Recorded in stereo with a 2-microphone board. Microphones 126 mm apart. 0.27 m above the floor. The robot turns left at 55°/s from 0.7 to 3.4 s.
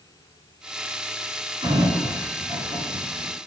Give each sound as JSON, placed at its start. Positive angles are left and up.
{"t": 1.6, "sound": "a sliding door", "side_deg": -50, "distance_m": 1.2}